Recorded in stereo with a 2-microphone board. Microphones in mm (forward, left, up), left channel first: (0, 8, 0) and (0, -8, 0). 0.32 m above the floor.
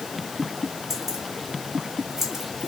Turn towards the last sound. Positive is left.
turn(degrees=-20)  # may be behind; listen again after turning